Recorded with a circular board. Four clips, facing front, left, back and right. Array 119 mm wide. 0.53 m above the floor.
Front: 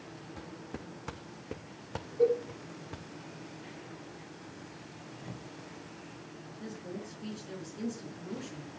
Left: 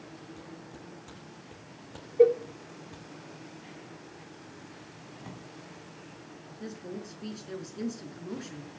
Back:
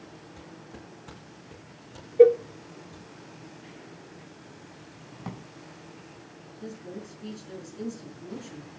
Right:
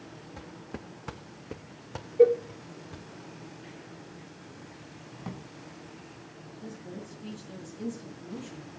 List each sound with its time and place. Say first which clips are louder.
0.4 s footsteps: right 3 dB, front 3 dB; 70° right, 2 m; by 3.1 s 10° right, 2.5 m
2.2 s a cowbell: right 1 dB, back 11 dB; 175° left, 0.8 m
5.2 s a drawer: right 5 dB, back 7 dB; 165° right, 2.5 m
6.5 s a woman speaking: left 2 dB, back 3 dB; 85° left, 6 m